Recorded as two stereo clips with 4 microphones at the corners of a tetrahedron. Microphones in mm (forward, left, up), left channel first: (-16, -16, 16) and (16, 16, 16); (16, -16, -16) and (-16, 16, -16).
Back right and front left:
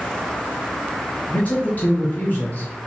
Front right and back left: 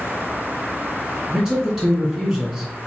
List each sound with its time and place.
1.3 s a man speaking: 130° right, 1.3 m